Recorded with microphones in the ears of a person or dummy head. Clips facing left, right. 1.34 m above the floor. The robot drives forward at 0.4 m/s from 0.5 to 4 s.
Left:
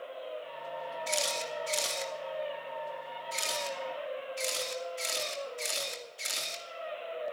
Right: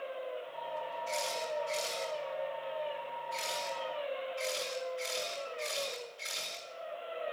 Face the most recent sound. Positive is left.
turn(degrees=55)  # may be behind; listen again after turning